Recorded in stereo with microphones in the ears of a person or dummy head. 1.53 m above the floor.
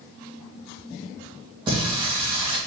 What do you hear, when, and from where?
1.7 s singing: 30° right (ahead or behind), 2.5 m